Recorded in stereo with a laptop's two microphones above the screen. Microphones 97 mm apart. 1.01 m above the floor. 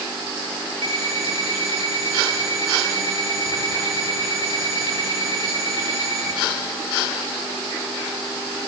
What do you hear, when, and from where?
0.8 s an alarm clock: 70° right (ahead or behind), 8.5 m